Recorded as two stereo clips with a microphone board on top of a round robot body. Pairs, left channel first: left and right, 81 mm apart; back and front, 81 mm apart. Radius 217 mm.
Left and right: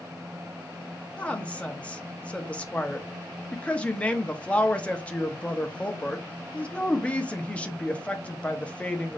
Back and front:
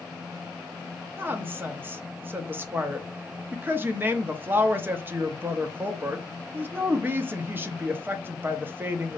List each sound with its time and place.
1.2 s a woman speaking: 30° left, 0.9 m